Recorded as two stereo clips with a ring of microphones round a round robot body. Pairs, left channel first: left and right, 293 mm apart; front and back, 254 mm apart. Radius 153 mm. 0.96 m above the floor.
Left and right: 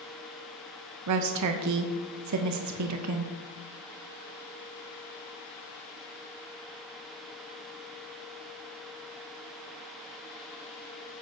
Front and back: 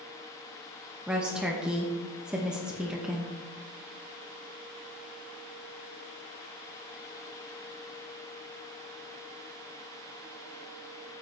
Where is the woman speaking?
95° right, 0.8 m.